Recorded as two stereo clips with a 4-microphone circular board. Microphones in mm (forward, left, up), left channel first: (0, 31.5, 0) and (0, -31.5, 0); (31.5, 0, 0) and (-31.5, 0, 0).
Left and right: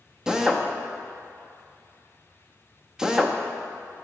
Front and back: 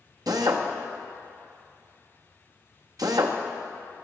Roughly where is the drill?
Behind.